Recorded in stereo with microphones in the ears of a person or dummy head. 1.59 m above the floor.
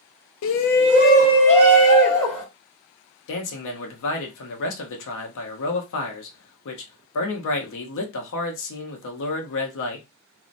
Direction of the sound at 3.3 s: 70° left (ahead or behind).